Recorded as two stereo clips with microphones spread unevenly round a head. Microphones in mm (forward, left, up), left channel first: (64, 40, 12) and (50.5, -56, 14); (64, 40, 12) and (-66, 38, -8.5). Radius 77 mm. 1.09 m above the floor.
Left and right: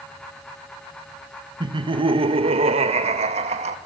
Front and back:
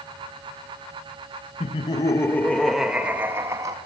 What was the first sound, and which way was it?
Laughter, 60° right.